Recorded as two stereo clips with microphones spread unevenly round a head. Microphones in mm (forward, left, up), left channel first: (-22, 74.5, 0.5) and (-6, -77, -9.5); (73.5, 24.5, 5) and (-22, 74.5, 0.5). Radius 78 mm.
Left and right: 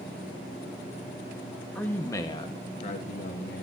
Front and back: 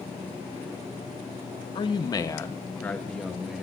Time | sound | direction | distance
1.8 | a man speaking | 15° left | 1.1 m